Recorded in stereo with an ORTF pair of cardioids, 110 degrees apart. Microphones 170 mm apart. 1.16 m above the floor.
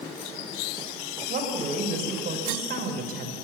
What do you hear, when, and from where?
1.3 s a woman speaking: 60° right, 5 m